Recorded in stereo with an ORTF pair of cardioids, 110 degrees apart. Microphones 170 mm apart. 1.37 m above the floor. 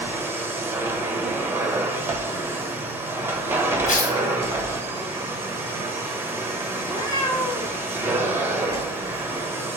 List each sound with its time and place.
0.0 s a machine running: 10° right, 1.1 m
3.9 s tearing paper: 55° left, 2.5 m
6.8 s a cat meowing: 25° left, 1.8 m